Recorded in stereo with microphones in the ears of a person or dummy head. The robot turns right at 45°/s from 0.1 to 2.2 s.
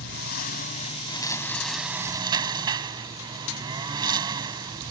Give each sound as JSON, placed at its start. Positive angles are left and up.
{"t": 0.0, "sound": "a lawn mower", "azimuth_deg": 105}